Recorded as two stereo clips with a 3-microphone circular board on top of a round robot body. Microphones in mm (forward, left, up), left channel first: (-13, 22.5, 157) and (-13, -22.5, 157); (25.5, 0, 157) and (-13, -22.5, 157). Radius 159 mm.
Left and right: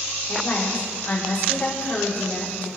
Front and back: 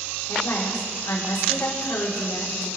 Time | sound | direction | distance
0.3 | a woman speaking | 35° left | 4 m